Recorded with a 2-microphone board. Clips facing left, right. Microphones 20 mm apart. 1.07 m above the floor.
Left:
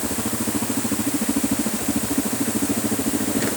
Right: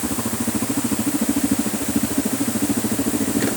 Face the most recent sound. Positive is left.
No sound to turn to.